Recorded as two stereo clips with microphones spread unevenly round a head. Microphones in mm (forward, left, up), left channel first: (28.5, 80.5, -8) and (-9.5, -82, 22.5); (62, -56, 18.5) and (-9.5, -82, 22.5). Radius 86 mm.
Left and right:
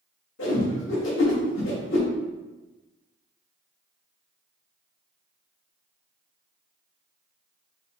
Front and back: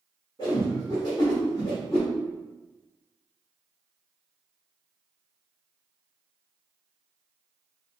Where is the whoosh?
85° left, 1.4 m.